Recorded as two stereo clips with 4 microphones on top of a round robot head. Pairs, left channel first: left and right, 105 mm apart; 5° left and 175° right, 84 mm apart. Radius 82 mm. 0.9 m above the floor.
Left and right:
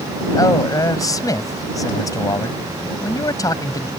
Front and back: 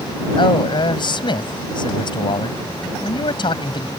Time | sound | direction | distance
0.4 | a man speaking | 35° left | ?